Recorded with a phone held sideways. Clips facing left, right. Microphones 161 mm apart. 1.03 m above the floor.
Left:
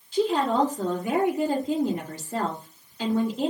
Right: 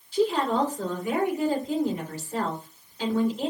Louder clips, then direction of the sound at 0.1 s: Left 1 dB; 80° left.